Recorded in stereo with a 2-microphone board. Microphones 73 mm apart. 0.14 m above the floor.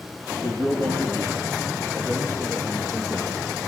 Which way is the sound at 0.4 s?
60° right (ahead or behind).